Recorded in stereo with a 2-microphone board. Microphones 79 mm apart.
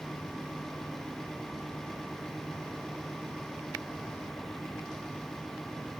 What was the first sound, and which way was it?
Only background noise.